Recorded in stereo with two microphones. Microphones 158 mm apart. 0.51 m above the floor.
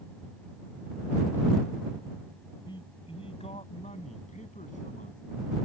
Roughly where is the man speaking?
Left.